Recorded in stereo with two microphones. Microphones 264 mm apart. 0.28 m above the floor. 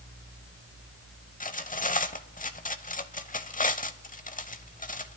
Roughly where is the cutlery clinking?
Left.